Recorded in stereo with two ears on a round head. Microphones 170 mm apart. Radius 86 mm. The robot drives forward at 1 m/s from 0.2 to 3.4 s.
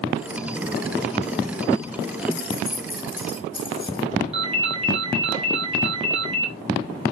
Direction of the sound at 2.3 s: 60° left (ahead or behind).